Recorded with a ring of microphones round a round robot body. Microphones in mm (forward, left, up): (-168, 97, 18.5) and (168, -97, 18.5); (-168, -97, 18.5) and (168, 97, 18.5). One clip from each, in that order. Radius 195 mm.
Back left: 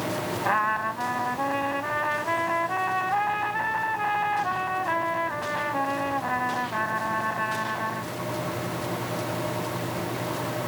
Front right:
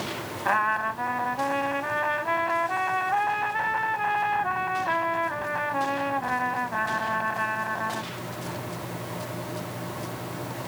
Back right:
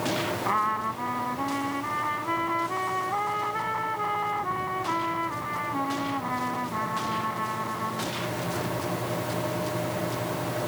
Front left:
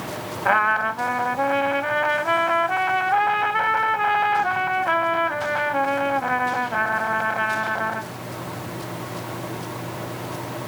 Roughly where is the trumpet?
Ahead left.